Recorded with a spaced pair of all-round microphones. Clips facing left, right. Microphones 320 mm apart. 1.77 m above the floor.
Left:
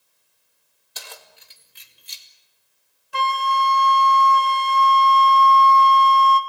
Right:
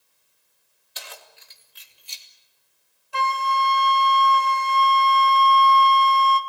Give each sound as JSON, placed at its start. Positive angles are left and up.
{"t": 0.9, "sound": "keys jangling", "side_deg": 55, "distance_m": 2.5}
{"t": 3.1, "sound": "a flute", "side_deg": 20, "distance_m": 1.1}